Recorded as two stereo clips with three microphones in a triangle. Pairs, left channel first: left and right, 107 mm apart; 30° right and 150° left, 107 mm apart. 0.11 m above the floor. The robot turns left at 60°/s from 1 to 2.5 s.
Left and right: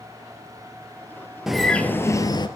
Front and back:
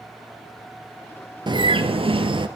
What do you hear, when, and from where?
1.5 s a bird: 175° right, 0.9 m; by 2.5 s 125° left, 0.9 m